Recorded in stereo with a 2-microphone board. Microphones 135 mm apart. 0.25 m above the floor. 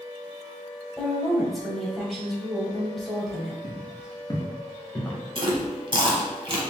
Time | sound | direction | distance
1.0 | a woman speaking | centre (ahead or behind) | 1.0 m
3.6 | footsteps | 50° left (ahead or behind) | 1.0 m
5.3 | chewing | 40° right (ahead or behind) | 0.8 m